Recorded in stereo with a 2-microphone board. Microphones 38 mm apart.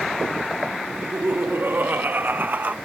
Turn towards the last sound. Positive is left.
turn(degrees=-45)  # may be behind; listen again after turning